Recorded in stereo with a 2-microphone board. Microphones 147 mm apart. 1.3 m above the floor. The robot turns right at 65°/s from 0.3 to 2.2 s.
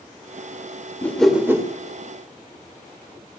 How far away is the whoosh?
About 2 m.